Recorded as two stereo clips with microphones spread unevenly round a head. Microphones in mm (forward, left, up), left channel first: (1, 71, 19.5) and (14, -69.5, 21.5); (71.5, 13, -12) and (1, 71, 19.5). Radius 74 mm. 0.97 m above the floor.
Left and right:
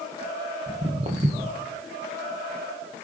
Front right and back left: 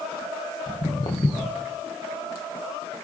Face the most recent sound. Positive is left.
turn(degrees=-100)